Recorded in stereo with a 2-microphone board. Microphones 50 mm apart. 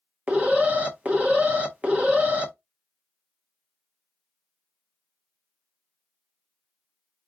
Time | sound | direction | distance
0.3 | an alarm | 30° right (ahead or behind) | 0.9 m